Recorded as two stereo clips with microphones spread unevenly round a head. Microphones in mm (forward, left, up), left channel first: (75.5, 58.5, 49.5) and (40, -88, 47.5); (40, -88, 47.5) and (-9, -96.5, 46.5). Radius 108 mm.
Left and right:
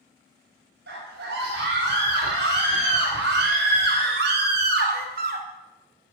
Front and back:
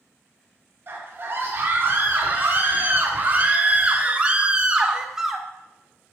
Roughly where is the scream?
Behind right.